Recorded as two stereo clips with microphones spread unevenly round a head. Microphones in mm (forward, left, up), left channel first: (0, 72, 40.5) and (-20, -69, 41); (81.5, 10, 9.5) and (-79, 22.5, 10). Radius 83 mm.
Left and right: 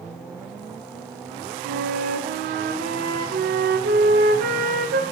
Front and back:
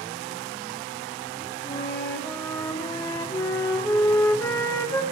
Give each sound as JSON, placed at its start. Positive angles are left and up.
{"t": 1.6, "sound": "a flute", "azimuth_deg": -80, "distance_m": 0.7}